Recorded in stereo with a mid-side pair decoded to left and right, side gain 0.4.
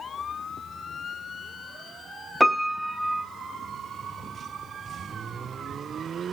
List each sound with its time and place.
2.4 s a piano: straight ahead, 0.6 m